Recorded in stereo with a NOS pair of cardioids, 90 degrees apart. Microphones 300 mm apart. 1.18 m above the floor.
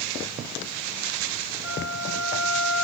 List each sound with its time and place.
1.6 s a flute: 40° left, 6.5 m